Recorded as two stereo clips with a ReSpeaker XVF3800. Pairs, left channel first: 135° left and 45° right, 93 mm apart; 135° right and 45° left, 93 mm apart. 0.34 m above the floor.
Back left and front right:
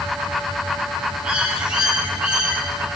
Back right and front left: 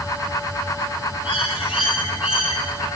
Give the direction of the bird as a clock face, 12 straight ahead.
4 o'clock.